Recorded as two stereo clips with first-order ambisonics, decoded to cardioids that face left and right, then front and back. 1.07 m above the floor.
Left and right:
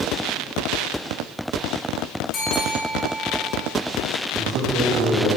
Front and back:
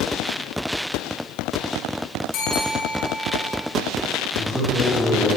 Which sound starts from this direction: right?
A man speaking, at 4.3 s.